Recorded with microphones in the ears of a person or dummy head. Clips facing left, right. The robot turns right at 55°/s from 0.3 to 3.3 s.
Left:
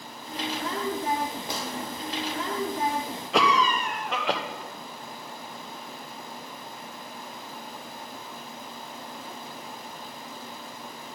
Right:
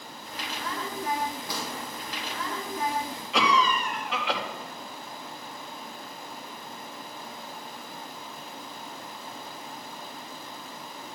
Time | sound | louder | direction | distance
1.5 | a gunshot | left 2 dB | 25° left (ahead or behind) | 1.4 m
3.3 | a cough | left 1 dB | 35° left (ahead or behind) | 1.1 m